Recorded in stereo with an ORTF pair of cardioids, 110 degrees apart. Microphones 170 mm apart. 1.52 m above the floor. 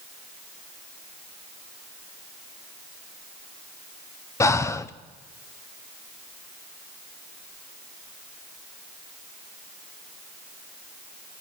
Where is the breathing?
20° left, 1.0 m.